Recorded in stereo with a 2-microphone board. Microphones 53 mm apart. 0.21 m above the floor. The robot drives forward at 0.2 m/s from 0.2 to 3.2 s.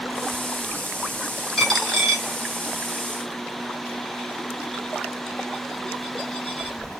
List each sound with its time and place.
1.6 s a dropped coin: 10° left (ahead or behind), 1.2 m